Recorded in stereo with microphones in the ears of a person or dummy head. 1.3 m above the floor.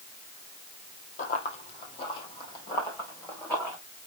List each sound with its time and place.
1.2 s running footsteps: 45° left (ahead or behind), 3 m; by 3.8 s 10° left (ahead or behind), 4.5 m